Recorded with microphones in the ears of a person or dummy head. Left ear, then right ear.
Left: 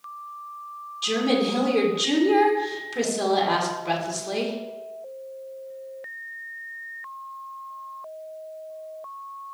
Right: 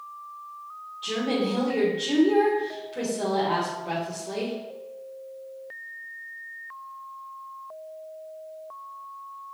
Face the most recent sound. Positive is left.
turn(degrees=65)  # may be behind; listen again after turning